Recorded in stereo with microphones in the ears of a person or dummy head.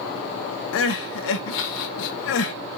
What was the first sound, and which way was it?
Crying, 65° left (ahead or behind).